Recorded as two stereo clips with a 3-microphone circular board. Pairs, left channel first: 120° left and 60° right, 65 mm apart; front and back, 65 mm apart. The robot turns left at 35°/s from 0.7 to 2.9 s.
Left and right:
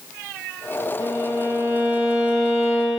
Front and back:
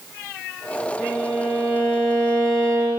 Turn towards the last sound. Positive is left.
turn(degrees=-155)